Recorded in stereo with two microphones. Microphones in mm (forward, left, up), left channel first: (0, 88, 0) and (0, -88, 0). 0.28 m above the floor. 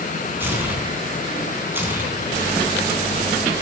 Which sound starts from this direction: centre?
Tearing paper, at 0.4 s.